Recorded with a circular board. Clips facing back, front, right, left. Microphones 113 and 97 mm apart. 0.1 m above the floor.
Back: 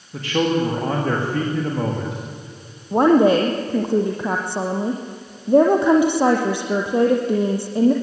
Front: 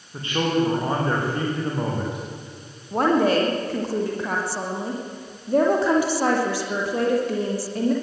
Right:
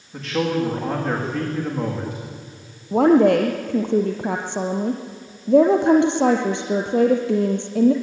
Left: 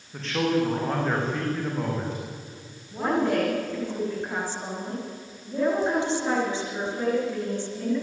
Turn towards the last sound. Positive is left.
turn(degrees=-115)